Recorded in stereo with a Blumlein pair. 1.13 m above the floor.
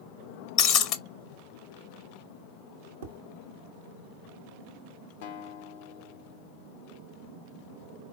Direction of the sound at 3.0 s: 60° right.